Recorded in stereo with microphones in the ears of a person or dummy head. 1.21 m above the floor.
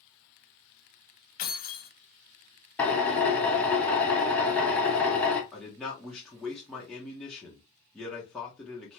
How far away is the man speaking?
About 0.7 m.